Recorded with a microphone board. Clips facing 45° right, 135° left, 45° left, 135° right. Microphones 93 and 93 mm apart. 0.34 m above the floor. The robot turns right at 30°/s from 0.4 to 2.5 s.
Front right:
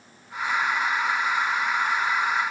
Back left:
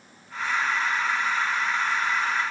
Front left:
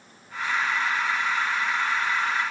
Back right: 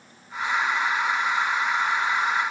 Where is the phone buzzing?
No phone buzzing in this recording.